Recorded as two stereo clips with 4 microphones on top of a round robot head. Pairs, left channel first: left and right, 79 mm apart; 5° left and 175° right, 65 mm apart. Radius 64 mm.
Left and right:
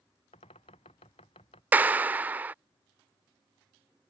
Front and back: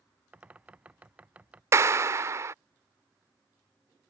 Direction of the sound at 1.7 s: 150° right.